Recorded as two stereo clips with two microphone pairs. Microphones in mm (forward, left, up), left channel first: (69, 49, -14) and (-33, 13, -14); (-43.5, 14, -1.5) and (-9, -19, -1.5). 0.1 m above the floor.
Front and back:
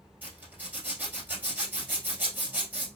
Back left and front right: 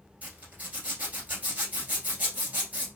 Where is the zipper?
95° right, 1.6 m.